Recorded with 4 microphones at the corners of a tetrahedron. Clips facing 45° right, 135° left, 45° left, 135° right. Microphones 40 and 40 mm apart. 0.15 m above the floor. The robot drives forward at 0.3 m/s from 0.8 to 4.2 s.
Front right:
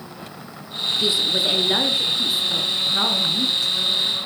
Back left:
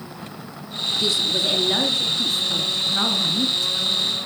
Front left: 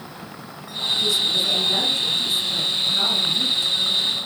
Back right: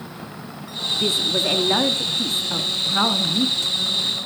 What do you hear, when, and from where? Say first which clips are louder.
0.9 s a woman speaking: front right 1 dB, even; 105° right, 1.7 m; by 3.7 s 135° right, 2.0 m